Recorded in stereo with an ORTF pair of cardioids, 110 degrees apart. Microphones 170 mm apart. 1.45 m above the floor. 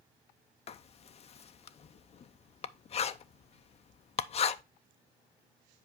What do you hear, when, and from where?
0.7 s writing: 40° left, 0.5 m